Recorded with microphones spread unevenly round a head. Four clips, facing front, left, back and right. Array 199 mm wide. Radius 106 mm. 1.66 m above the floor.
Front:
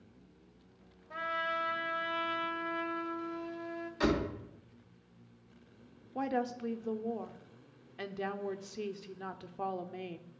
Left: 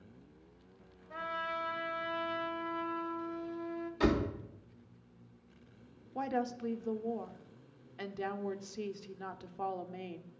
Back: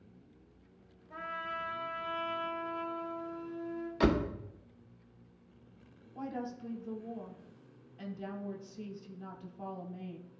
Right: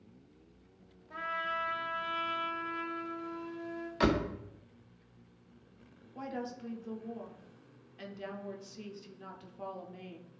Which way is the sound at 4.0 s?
Straight behind.